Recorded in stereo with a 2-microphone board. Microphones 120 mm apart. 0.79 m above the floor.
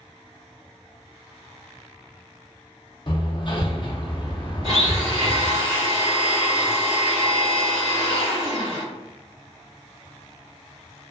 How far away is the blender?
About 1.6 m.